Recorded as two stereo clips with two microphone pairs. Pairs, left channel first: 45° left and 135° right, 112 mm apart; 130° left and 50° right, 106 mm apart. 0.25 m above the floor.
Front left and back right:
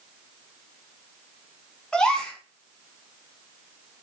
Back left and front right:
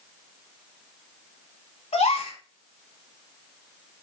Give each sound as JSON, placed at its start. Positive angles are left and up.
{"t": 1.9, "sound": "a gasp", "azimuth_deg": 135, "distance_m": 0.7}